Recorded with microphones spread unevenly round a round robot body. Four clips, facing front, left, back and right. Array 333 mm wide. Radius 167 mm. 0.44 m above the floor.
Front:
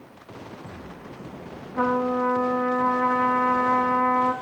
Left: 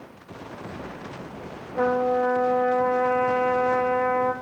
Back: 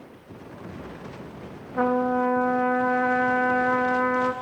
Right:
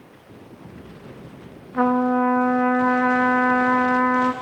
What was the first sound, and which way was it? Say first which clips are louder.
A trumpet: right 3 dB, back 1 dB; 100° right.